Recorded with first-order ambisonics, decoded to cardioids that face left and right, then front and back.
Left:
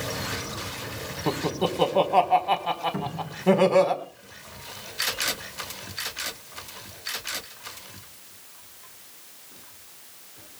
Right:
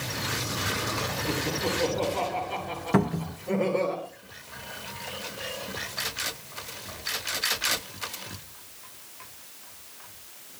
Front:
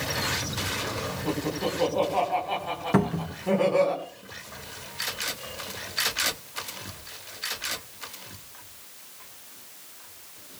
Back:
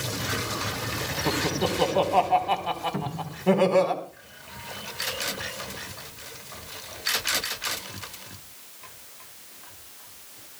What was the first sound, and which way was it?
Laughter, 110° left.